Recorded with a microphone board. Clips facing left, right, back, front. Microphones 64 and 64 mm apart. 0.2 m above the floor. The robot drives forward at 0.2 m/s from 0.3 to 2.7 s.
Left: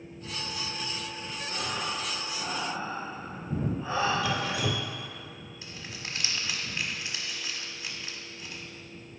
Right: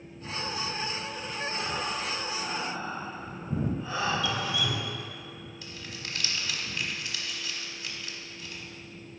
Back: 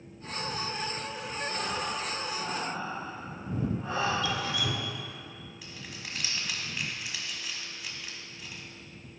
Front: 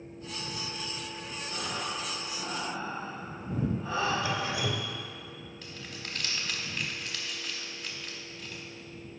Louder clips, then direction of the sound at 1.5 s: Even, back 1 dB; 145° left.